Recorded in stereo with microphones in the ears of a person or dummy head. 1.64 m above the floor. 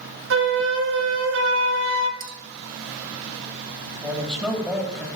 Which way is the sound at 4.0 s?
5° left (ahead or behind).